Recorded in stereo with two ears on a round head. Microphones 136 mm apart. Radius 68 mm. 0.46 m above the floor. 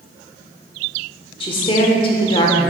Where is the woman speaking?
35° left (ahead or behind), 1.0 m.